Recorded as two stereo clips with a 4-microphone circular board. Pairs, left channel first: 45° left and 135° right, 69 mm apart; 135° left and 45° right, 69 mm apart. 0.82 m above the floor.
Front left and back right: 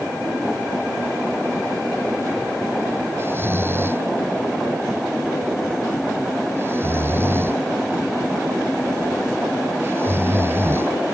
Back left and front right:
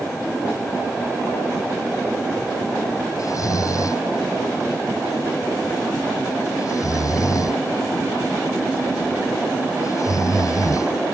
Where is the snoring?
170° left.